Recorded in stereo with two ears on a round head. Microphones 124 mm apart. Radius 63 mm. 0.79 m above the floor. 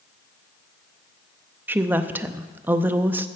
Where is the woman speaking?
15° right (ahead or behind), 0.6 m.